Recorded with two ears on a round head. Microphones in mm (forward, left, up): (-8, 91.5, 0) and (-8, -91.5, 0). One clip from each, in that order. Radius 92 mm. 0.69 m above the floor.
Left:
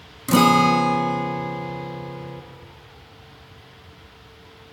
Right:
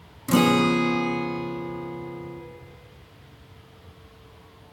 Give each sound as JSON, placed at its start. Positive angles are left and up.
{"t": 0.3, "sound": "a guitar", "side_deg": 15, "distance_m": 0.8}